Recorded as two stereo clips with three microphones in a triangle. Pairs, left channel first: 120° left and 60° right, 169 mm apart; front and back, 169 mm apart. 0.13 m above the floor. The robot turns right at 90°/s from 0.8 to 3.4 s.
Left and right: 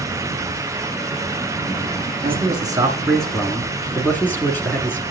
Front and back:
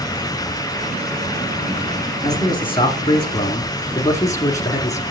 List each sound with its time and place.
2.2 s a man speaking: 55° right, 1.9 m; by 5.0 s 50° left, 1.9 m